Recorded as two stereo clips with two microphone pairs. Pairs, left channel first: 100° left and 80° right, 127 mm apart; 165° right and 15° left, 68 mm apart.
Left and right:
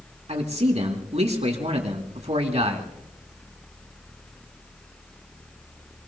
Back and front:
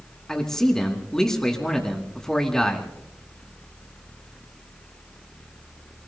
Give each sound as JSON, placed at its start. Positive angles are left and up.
{"t": 0.3, "sound": "a man speaking", "azimuth_deg": -85, "distance_m": 2.5}